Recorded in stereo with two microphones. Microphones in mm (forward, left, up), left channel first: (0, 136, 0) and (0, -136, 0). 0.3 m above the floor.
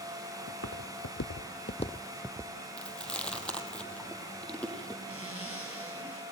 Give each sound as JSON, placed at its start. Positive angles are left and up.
{"t": 0.5, "sound": "footsteps", "side_deg": 65, "distance_m": 1.5}
{"t": 2.8, "sound": "chewing", "side_deg": 5, "distance_m": 2.5}
{"t": 5.1, "sound": "a zipper", "side_deg": 55, "distance_m": 7.5}